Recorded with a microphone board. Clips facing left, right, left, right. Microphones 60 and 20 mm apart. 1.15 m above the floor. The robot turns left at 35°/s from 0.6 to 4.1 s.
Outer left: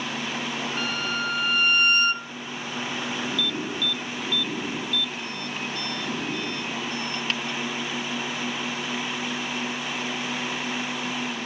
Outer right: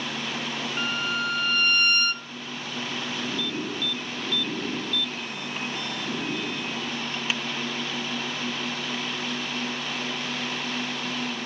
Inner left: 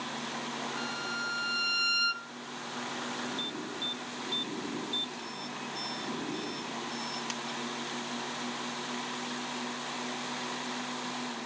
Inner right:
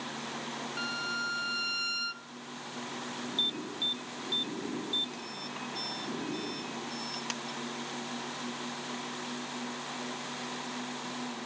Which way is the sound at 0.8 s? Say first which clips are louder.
Outer right 2 dB, inner right 4 dB; 160° right.